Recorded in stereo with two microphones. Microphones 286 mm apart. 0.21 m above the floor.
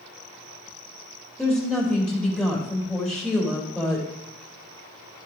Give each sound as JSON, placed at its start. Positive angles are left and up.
{"t": 1.4, "sound": "a woman speaking", "side_deg": 0, "distance_m": 5.0}